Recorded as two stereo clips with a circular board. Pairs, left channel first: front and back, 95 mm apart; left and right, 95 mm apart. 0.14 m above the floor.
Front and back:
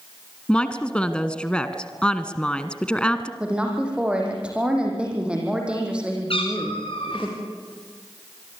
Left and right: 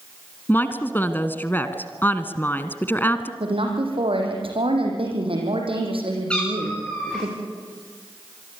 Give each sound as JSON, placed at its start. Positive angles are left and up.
{"t": 0.5, "sound": "a woman speaking", "azimuth_deg": 65, "distance_m": 1.4}
{"t": 3.4, "sound": "a woman speaking", "azimuth_deg": -100, "distance_m": 6.5}
{"t": 6.3, "sound": "a cat meowing", "azimuth_deg": 10, "distance_m": 8.5}